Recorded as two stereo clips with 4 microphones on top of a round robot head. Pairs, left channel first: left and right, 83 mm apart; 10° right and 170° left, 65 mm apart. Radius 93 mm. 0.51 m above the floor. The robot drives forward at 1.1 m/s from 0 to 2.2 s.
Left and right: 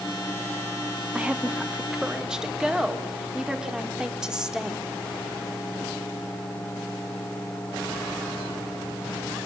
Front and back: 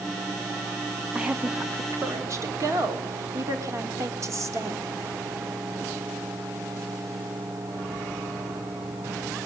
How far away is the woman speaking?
About 1.2 m.